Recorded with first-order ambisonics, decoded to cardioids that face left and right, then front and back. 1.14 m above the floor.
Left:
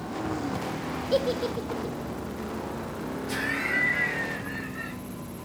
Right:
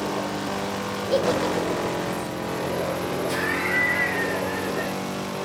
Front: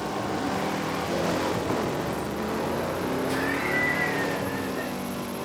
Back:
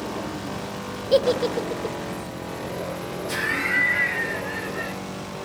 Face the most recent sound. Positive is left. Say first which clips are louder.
# right 2 dB, back 6 dB
turn(degrees=-155)